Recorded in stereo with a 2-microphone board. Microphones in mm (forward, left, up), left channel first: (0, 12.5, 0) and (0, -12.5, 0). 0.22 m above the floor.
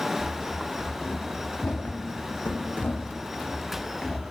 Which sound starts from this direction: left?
Running footsteps, at 0.2 s.